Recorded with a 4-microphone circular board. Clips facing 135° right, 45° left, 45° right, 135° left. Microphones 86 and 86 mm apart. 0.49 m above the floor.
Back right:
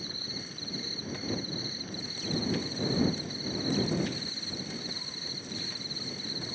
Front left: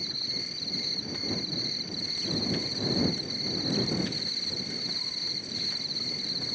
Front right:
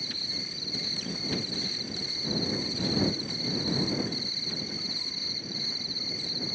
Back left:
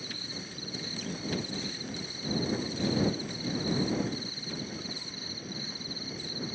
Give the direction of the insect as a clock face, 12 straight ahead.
6 o'clock.